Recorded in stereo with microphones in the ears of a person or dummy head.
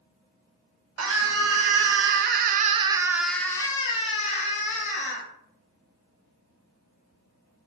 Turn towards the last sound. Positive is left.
turn(degrees=45)  # may be behind; listen again after turning